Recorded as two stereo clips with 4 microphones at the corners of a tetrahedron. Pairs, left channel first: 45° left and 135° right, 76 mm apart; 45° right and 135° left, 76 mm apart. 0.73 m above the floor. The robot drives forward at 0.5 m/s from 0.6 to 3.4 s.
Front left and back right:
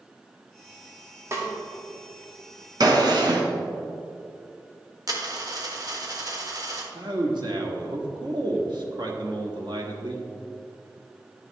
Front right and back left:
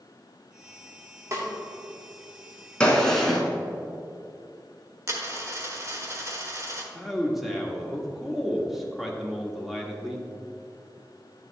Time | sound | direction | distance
1.3 | a snare drum | straight behind | 1.5 m
2.8 | a gunshot | 120° right | 1.2 m
5.1 | a dropped coin | 175° right | 1.2 m
6.9 | a man speaking | 135° right | 1.2 m